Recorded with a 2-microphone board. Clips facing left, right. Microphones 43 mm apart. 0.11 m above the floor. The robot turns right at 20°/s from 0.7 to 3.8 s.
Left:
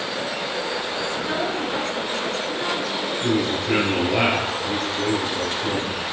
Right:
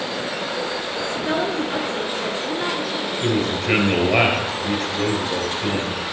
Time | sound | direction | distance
1.1 | a woman speaking | 20° right (ahead or behind) | 1.3 m
3.2 | a man speaking | 45° right (ahead or behind) | 2.5 m